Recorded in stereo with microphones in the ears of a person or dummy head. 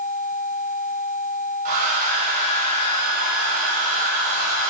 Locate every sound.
1.6 s a hair dryer: 40° right (ahead or behind), 0.6 m